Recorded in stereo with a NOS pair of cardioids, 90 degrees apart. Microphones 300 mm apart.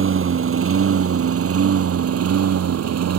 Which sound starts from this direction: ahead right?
A lawn mower, at 0.0 s.